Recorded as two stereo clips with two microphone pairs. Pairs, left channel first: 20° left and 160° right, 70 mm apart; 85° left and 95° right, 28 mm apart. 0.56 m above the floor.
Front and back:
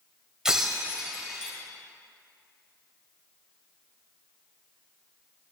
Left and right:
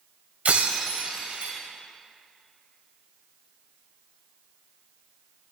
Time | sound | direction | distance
0.5 | breaking glass | 75° right | 1.8 m